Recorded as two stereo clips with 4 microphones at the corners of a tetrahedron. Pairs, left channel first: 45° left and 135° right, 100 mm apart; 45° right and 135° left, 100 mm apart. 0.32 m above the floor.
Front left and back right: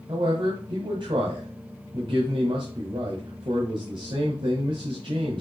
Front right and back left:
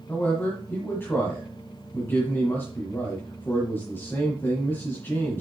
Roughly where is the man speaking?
Right.